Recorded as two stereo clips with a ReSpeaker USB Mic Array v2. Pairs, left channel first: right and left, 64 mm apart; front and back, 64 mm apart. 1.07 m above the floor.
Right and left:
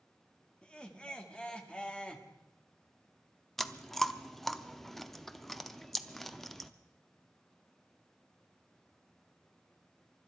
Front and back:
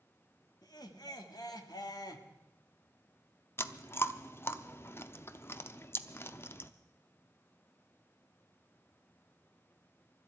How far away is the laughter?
About 1.8 m.